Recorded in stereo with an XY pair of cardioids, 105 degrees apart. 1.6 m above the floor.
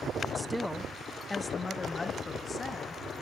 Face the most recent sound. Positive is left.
turn(degrees=40)